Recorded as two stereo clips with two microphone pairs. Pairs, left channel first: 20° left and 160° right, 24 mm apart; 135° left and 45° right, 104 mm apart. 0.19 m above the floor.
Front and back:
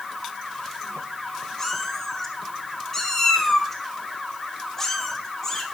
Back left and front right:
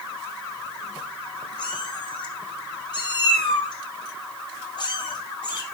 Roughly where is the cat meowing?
Left.